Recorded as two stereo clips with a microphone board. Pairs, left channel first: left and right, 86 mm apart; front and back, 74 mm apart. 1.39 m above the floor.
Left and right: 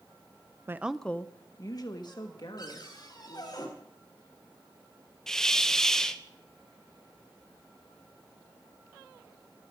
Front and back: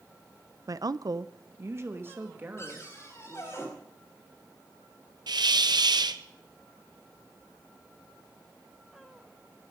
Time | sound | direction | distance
0.7 | a woman speaking | 145° right | 0.5 m
2.6 | a cupboard door | 50° left | 4 m
5.3 | a hiss | 175° left | 0.7 m